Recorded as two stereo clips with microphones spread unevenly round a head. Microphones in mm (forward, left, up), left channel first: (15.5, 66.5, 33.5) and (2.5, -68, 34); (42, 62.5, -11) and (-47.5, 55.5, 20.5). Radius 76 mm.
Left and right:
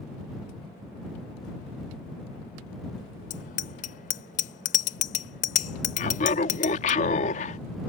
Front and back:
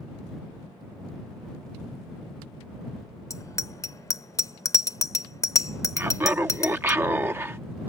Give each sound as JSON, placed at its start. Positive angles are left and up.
{"t": 3.3, "sound": "a bicycle bell", "azimuth_deg": 60}
{"t": 6.0, "sound": "laughter", "azimuth_deg": 120}